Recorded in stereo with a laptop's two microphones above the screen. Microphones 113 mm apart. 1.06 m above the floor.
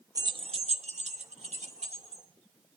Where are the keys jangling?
30° right (ahead or behind), 0.6 m; by 2.2 s 65° right (ahead or behind), 1.9 m.